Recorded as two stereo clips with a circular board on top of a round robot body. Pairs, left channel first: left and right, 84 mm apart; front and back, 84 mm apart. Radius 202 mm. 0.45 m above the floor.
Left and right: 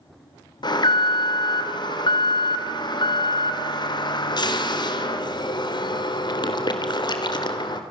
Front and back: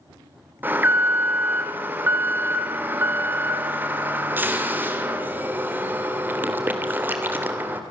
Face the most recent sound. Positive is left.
turn(degrees=115)